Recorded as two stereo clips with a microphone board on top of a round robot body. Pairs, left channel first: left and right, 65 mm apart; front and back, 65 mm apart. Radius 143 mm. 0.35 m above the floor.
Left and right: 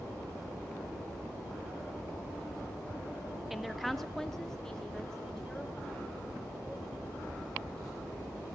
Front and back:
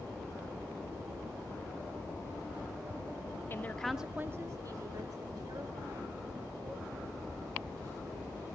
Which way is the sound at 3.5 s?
5° right.